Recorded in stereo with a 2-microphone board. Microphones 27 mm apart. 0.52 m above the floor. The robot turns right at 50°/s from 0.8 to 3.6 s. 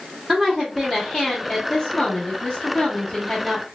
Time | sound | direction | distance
0.3 | a woman speaking | 5° left | 1.0 m